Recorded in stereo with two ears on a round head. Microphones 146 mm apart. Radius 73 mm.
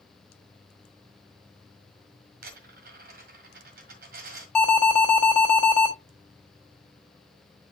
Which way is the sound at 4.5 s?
5° left (ahead or behind).